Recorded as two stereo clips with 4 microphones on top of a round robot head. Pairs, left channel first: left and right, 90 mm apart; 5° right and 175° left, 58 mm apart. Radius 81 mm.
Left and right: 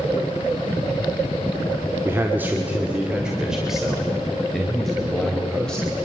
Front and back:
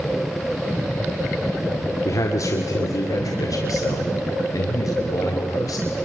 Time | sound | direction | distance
2.0 | a man speaking | 30° right | 1.8 m